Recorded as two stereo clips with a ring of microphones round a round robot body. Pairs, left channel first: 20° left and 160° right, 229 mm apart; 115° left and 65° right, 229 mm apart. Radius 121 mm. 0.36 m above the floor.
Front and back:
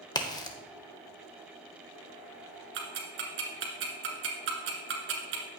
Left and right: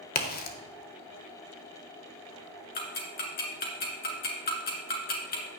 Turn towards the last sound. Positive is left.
turn(degrees=165)